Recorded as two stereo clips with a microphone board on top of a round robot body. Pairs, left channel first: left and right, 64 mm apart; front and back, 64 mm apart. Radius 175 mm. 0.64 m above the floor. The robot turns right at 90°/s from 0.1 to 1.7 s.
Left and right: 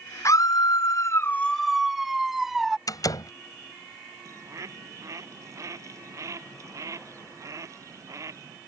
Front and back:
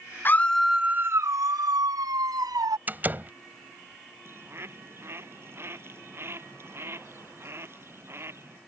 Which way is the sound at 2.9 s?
115° left.